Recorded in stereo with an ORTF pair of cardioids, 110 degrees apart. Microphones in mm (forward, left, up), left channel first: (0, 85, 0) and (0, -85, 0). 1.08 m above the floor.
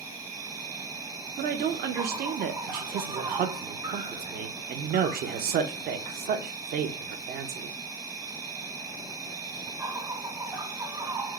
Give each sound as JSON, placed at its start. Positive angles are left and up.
{"t": 0.0, "sound": "an insect", "azimuth_deg": -20, "distance_m": 0.8}
{"t": 1.4, "sound": "a woman speaking", "azimuth_deg": -60, "distance_m": 0.7}
{"t": 2.7, "sound": "a man speaking", "azimuth_deg": -60, "distance_m": 0.7}